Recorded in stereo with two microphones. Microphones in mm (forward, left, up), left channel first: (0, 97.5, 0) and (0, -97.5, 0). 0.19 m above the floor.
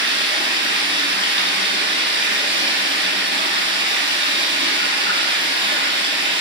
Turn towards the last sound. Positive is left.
turn(degrees=-80)